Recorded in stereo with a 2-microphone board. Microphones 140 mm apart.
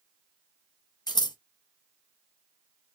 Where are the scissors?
30° left (ahead or behind), 0.6 m.